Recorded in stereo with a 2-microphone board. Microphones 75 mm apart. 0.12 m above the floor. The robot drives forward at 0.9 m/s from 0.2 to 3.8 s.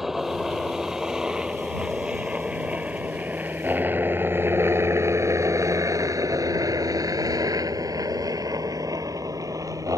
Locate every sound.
0.0 s a helicopter: 5° right (ahead or behind); by 10.0 s 45° right (ahead or behind)